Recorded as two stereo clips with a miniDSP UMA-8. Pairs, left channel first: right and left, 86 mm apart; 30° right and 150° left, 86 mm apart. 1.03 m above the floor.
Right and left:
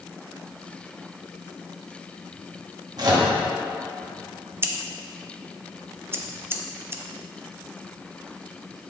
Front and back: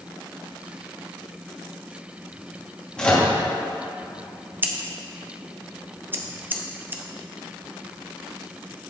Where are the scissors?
105° left, 0.5 m.